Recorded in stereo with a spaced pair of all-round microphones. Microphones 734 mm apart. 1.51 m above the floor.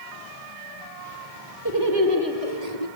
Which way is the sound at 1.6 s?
30° right (ahead or behind).